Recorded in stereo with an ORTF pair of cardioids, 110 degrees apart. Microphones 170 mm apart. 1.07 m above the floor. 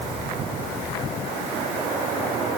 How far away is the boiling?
I don't hear boiling.